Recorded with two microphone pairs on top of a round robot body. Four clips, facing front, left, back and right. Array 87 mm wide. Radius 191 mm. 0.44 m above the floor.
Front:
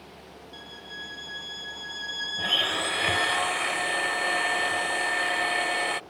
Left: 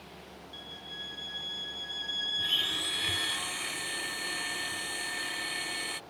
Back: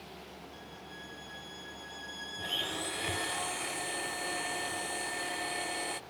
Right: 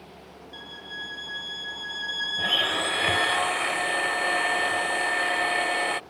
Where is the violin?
70° right.